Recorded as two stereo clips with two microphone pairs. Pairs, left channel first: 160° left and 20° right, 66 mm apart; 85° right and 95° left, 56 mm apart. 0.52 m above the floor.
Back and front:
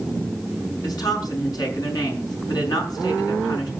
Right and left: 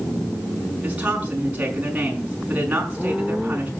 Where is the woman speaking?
160° left, 6 m.